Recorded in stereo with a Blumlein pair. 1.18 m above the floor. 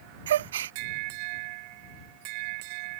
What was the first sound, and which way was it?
A gasp, 60° right.